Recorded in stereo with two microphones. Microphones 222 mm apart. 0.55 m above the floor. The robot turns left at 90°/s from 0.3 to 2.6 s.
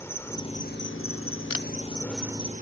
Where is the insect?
170° left; by 2.6 s 40° right.